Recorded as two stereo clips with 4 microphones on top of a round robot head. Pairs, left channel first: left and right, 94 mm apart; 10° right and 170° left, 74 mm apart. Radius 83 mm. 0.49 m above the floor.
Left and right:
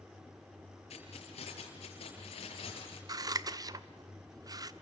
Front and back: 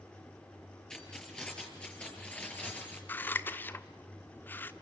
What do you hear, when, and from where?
0.9 s keys jangling: 70° left, 7 m; by 3.0 s 60° left, 6.5 m
3.1 s scissors: 65° right, 1.4 m